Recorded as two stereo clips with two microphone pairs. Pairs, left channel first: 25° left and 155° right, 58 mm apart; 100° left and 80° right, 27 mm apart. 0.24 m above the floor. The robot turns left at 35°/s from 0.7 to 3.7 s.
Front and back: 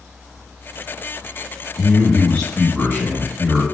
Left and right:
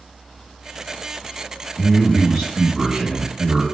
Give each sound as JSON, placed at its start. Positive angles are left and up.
{"t": 1.8, "sound": "a man speaking", "azimuth_deg": -35, "distance_m": 1.9}